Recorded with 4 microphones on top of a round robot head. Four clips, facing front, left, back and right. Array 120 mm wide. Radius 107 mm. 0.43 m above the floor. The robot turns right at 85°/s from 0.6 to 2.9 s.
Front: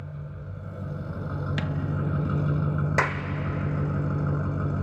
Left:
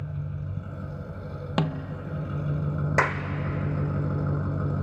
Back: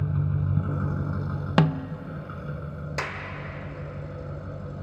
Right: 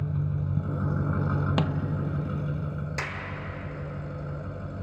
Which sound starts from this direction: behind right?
An engine running, at 0.0 s.